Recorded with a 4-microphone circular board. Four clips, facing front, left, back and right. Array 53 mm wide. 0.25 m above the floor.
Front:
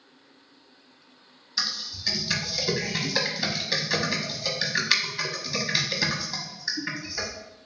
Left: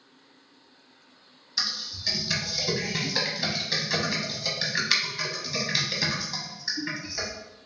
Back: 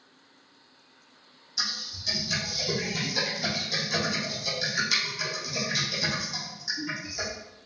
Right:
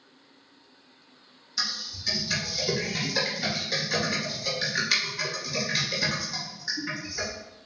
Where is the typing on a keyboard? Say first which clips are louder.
Even, front 2 dB; 20° left, 0.7 m.